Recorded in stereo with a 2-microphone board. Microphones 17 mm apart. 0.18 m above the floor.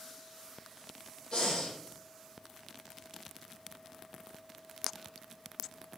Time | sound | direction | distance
1.3 | breathing | 60° left (ahead or behind) | 3 m